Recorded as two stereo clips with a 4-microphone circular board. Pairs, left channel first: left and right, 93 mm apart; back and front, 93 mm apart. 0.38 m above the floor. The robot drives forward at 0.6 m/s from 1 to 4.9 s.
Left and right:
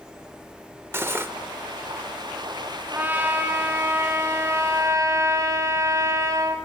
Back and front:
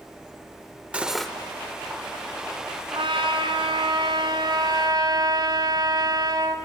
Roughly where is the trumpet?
Ahead.